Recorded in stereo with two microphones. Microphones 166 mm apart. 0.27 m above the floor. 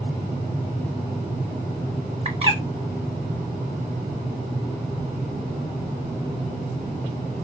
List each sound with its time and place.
2.2 s a bird: 35° right (ahead or behind), 0.8 m